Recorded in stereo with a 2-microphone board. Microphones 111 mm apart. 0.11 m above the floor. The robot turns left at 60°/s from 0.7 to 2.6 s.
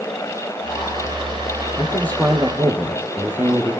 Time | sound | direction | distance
1.8 | a man speaking | 30° left | 3 m